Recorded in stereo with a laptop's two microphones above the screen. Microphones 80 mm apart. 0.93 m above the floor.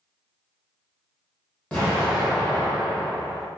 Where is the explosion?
15° left (ahead or behind), 0.9 m.